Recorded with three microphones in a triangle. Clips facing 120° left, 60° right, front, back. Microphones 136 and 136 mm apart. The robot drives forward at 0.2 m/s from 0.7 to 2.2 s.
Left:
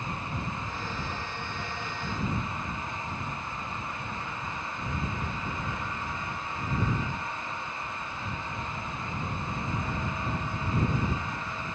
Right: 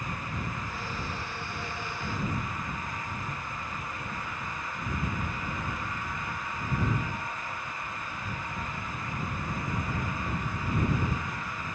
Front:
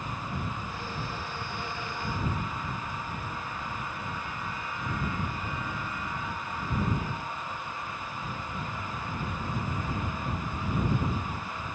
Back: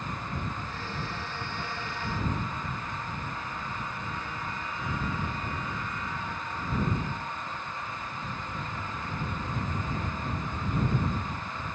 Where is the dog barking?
I don't hear a dog barking.